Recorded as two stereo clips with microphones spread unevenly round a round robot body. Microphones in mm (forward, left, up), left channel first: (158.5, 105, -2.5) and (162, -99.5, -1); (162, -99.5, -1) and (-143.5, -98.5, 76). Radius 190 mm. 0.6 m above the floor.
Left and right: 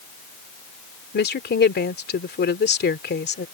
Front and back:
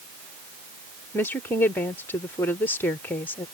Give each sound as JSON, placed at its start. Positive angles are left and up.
{"t": 1.1, "sound": "a woman speaking", "azimuth_deg": 75}